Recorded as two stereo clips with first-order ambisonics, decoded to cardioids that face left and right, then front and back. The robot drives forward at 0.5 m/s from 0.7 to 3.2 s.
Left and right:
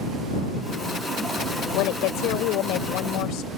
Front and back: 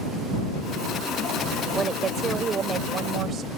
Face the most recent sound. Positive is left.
turn(degrees=125)